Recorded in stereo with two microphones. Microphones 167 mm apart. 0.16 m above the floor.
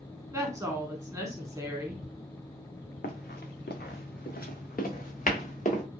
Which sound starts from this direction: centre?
A woman speaking, at 0.3 s.